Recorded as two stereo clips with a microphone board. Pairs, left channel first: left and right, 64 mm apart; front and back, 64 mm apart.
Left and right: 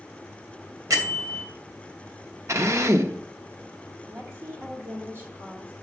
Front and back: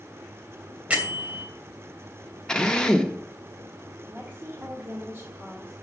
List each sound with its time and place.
0.9 s a bell: 110° right, 2.5 m
2.5 s a drill: 75° right, 0.9 m
4.1 s a woman speaking: 125° right, 1.8 m